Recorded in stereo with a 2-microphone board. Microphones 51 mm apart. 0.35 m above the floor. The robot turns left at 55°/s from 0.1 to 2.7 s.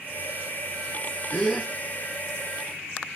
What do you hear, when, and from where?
1.3 s a gasp: 25° left (ahead or behind), 1.4 m; by 1.7 s 5° left (ahead or behind), 1.4 m